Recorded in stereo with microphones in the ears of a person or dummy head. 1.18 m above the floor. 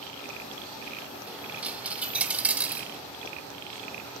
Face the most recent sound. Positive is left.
turn(degrees=-5)  # may be behind; listen again after turning